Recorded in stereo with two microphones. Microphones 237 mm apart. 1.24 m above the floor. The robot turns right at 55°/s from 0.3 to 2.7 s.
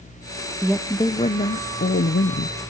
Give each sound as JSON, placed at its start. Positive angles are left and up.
{"t": 0.6, "sound": "a woman speaking", "azimuth_deg": 0, "distance_m": 0.5}